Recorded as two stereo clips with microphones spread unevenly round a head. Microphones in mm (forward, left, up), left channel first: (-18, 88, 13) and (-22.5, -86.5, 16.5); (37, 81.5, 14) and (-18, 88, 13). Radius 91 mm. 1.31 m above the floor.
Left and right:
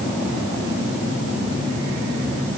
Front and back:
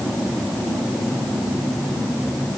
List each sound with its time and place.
Only background noise.